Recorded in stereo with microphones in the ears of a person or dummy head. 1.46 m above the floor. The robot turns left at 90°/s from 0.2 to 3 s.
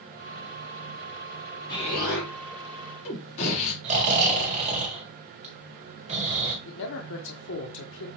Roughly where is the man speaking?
Left.